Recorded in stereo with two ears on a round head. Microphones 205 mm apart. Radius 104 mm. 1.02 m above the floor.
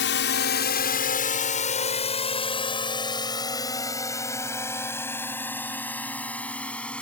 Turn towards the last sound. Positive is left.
turn(degrees=5)  # may be behind; listen again after turning